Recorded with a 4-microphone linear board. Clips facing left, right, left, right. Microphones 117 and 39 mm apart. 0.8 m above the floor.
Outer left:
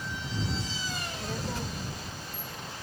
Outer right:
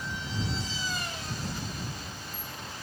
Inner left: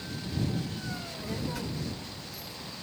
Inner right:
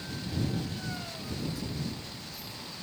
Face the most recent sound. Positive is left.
turn(degrees=50)  # may be behind; listen again after turning